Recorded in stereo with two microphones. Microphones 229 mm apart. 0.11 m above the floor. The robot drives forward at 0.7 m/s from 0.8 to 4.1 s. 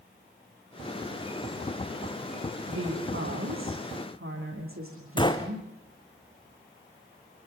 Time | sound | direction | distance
2.7 | a woman speaking | 65° right (ahead or behind) | 8.5 m
5.2 | a gunshot | 20° left (ahead or behind) | 2 m